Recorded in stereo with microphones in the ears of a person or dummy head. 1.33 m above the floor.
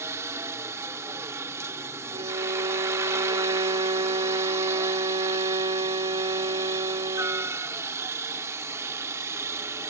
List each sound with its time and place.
0.0 s a helicopter: 15° right (ahead or behind)
2.1 s a violin: 20° right (ahead or behind)